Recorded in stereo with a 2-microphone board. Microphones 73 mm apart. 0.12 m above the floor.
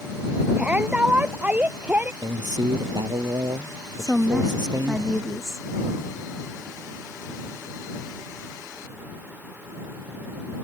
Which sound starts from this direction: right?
A man speaking, at 2.2 s.